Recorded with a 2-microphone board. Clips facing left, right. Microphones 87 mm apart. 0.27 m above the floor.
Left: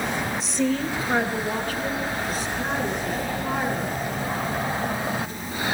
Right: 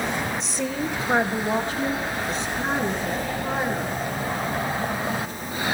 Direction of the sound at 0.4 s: Centre (ahead or behind).